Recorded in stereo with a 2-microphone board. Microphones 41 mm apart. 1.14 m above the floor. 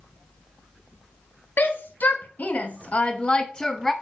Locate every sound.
1.6 s a shout: 55° left (ahead or behind), 1.7 m; by 3.9 s 5° left (ahead or behind), 0.9 m